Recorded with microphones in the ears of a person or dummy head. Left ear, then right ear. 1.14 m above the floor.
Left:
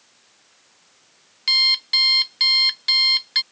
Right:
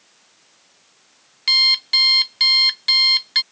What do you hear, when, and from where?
1.5 s an alarm clock: 10° right (ahead or behind)